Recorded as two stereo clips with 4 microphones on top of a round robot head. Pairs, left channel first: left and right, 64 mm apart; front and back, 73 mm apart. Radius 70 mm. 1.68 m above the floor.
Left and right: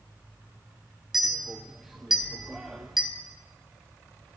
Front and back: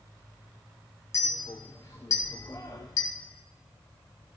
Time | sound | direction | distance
1.1 | a clink | 10° right | 0.5 m